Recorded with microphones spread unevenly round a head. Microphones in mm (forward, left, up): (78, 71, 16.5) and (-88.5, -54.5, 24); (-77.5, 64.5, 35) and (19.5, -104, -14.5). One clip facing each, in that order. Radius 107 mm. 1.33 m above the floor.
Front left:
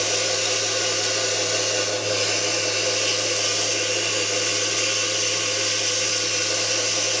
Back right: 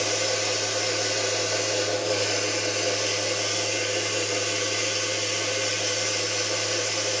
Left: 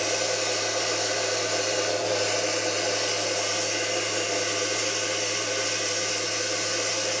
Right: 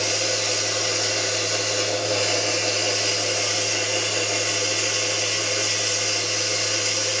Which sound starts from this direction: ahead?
Running water, at 0.0 s.